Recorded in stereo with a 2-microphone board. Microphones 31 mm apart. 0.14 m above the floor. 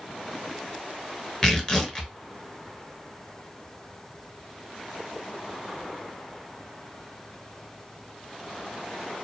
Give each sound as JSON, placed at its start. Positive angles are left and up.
{"t": 1.4, "sound": "tearing paper", "side_deg": 20, "distance_m": 0.7}